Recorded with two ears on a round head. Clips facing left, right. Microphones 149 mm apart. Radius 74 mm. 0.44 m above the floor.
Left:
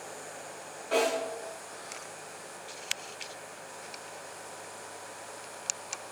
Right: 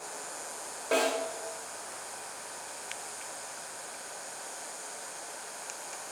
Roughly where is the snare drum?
Right.